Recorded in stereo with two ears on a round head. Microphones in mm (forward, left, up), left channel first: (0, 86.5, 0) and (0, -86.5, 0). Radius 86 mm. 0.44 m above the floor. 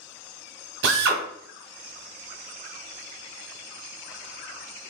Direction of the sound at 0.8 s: 65° right (ahead or behind).